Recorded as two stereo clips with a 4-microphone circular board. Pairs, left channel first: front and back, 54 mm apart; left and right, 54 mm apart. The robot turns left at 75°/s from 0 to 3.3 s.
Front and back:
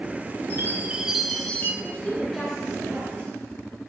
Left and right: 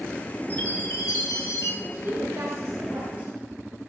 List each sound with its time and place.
0.5 s a chime: 145° left, 1.3 m; by 1.7 s 55° left, 1.3 m
1.8 s a woman speaking: 50° right, 3.5 m; by 3.3 s 160° right, 3.5 m